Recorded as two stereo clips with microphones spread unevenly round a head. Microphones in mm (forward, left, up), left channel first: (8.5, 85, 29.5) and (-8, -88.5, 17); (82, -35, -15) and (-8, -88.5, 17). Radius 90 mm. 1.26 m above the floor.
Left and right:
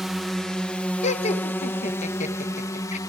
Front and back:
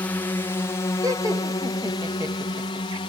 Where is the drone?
10° right; by 3.1 s 15° left.